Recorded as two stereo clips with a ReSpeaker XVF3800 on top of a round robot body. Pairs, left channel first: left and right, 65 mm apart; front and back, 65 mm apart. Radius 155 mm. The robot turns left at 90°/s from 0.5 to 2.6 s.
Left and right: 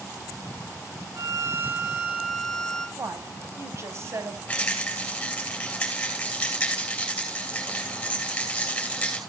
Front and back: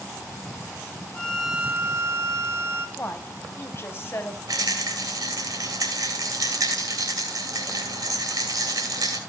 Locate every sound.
1.1 s a violin: 70° right, 1.7 m; by 2.9 s 160° left, 1.7 m
3.0 s a woman speaking: 50° right, 2.5 m
4.5 s a rattle: 160° left, 4 m